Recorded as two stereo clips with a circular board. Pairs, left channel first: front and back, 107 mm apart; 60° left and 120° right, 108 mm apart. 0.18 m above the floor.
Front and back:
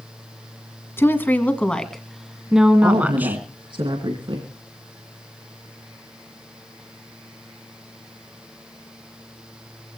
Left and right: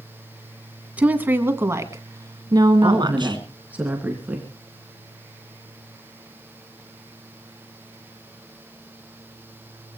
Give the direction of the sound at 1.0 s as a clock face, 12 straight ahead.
2 o'clock.